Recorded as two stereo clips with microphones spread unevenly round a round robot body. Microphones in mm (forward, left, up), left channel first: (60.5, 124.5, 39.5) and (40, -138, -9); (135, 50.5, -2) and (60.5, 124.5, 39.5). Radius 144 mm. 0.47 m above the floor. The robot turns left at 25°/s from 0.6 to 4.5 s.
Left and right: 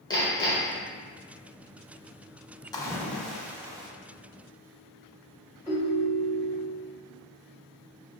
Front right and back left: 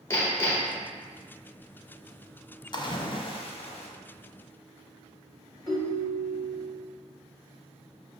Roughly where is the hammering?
Ahead.